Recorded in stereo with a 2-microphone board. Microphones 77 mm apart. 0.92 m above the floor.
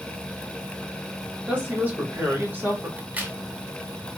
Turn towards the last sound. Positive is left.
turn(degrees=-20)  # may be behind; listen again after turning